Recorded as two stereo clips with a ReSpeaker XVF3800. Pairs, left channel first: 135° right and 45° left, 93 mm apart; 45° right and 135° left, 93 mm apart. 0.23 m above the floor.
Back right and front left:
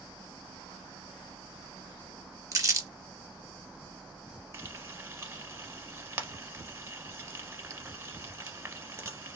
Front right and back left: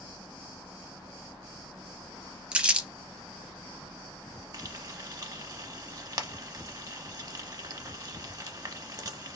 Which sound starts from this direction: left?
Frying, at 4.5 s.